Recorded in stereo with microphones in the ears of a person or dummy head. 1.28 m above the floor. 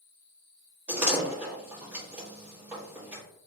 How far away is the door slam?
About 1.3 m.